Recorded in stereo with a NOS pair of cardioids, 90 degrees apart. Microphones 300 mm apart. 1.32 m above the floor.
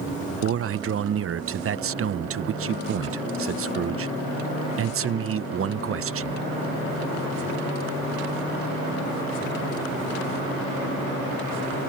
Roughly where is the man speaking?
Ahead right.